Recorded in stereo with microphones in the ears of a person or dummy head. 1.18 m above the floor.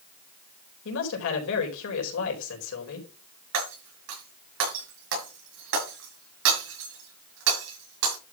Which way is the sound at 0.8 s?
75° left (ahead or behind).